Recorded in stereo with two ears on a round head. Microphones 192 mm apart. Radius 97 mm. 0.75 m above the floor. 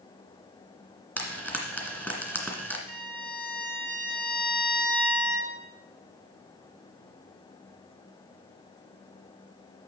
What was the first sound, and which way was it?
Frying, 5° left (ahead or behind).